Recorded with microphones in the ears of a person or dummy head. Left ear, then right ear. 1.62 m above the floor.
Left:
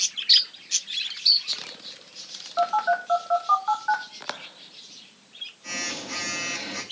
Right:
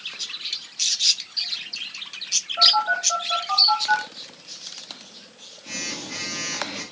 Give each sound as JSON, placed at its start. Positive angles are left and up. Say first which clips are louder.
{"t": 2.6, "sound": "a phone buzzing", "louder": "right 5 dB", "side_deg": 40, "distance_m": 2.5}